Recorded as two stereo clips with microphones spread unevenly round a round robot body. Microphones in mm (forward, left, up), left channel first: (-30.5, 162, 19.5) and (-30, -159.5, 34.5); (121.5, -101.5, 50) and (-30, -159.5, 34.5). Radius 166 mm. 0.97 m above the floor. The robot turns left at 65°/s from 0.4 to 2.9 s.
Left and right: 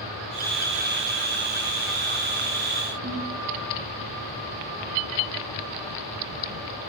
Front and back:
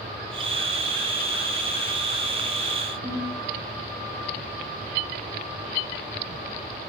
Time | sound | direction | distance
3.0 | a ringtone | 135° right | 3.5 m